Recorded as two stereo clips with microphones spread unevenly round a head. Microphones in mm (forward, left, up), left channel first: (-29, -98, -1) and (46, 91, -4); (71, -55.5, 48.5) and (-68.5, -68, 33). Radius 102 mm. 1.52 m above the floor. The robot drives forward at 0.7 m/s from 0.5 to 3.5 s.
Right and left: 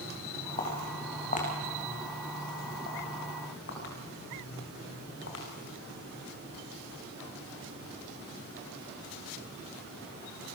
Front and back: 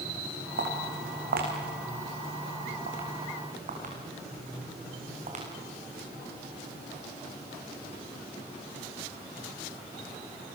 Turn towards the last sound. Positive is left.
turn(degrees=-140)